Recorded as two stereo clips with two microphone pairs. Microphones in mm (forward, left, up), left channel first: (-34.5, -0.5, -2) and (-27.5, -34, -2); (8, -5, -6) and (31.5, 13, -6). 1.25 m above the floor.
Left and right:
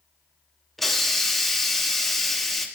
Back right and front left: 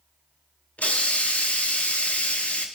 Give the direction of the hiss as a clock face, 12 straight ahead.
6 o'clock.